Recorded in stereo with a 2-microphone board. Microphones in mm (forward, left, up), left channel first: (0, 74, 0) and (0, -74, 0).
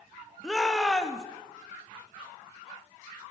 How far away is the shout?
About 0.5 m.